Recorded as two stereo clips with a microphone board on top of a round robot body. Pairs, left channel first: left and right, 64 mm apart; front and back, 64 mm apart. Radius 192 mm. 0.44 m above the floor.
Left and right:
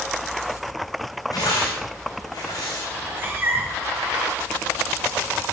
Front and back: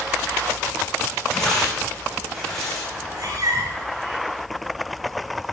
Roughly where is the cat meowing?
Behind right.